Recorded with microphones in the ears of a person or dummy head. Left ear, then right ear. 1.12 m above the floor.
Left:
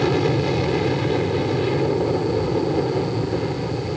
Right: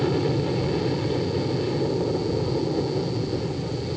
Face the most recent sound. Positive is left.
turn(degrees=70)  # may be behind; listen again after turning